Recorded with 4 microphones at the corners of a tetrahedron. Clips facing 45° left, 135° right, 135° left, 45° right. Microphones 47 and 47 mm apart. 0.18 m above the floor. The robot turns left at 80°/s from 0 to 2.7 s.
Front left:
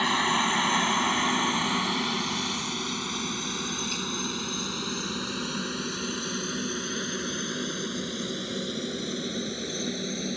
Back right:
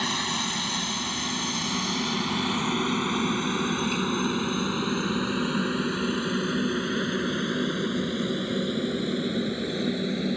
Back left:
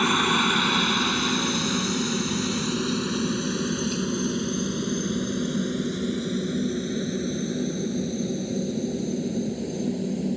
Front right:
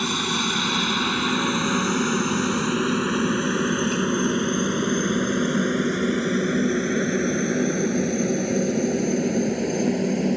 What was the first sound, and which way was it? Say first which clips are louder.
A helicopter: front left 4 dB, back left 3 dB; 100° left.